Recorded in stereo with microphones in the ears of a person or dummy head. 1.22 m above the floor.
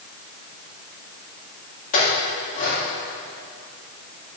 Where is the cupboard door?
I don't hear a cupboard door.